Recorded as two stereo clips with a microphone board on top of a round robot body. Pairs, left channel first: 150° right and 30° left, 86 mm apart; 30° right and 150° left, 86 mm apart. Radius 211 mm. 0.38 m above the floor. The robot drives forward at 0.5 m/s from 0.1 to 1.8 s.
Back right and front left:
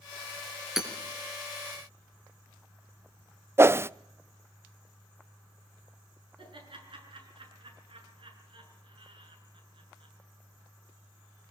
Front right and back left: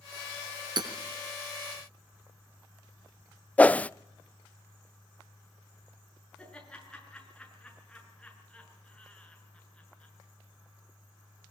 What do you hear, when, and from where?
0.8 s hammering: 115° left, 3 m
3.6 s a whoosh: 25° left, 0.6 m
6.4 s laughter: 50° left, 7 m